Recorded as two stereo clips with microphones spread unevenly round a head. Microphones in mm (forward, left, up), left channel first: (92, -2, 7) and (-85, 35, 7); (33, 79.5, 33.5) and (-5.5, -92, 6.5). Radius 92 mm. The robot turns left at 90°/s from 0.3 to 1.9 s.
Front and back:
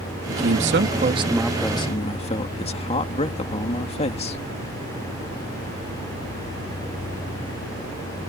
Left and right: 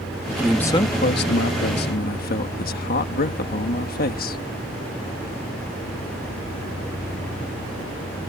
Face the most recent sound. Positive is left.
turn(degrees=45)